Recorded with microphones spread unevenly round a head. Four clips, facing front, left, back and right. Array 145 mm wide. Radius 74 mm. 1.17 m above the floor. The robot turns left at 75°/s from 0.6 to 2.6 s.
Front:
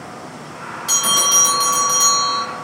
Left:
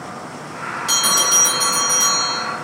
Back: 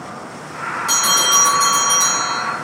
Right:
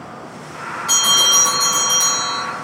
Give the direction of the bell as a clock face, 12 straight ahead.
10 o'clock.